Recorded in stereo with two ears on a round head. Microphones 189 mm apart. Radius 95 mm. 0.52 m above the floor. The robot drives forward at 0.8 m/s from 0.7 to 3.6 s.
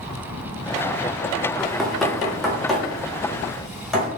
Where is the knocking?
Centre (ahead or behind), 0.5 m.